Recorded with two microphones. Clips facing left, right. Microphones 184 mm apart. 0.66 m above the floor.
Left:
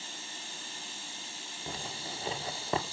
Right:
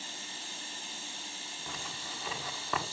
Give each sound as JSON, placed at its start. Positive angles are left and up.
{"t": 1.7, "sound": "a zipper", "side_deg": 30, "distance_m": 1.9}